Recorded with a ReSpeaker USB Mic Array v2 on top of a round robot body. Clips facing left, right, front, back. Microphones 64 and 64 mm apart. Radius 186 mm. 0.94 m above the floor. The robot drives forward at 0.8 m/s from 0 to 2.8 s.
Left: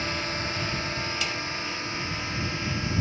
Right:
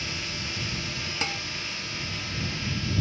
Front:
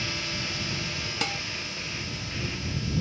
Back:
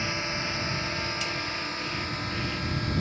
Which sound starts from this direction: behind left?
A drone, at 0.0 s.